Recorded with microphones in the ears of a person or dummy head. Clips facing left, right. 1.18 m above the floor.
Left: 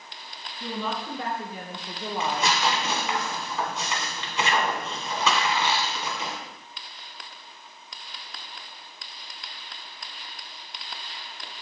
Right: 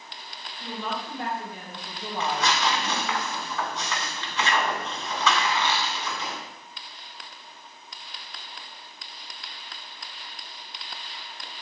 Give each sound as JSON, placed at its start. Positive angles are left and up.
{"t": 0.6, "sound": "a woman speaking", "side_deg": 70, "distance_m": 1.5}
{"t": 2.2, "sound": "tearing paper", "side_deg": 25, "distance_m": 1.2}